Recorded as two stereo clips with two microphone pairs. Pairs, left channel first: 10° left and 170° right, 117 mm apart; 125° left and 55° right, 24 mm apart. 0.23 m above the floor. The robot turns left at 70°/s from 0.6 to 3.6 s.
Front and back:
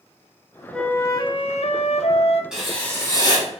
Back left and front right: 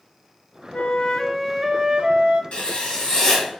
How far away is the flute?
About 0.7 m.